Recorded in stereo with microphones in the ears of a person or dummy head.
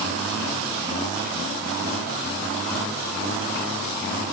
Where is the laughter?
I don't hear laughter.